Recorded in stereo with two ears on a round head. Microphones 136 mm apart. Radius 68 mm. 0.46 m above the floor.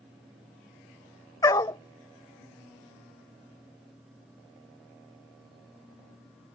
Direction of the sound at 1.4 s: 25° left (ahead or behind).